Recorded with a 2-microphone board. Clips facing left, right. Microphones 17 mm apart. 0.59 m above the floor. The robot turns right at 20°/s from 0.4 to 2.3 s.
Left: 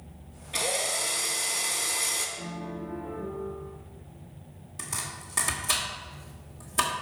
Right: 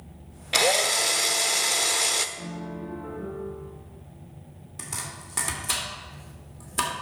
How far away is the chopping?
About 1.9 m.